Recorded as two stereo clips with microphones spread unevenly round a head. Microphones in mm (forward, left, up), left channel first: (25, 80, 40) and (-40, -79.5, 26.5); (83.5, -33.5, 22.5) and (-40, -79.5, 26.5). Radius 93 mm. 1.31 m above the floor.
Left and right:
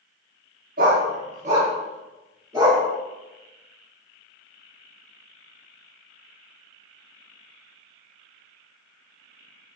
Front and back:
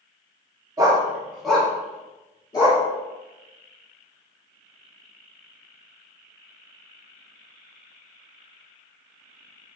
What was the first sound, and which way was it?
A dog barking, 125° right.